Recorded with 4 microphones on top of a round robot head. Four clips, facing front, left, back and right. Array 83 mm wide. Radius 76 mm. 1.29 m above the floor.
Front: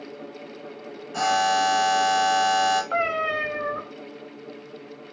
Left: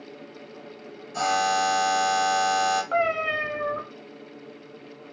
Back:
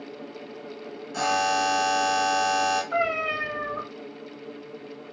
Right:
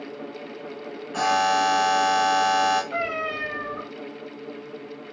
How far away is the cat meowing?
About 0.8 m.